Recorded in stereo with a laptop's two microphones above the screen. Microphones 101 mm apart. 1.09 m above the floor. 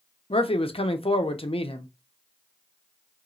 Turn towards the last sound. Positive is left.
turn(degrees=70)  # may be behind; listen again after turning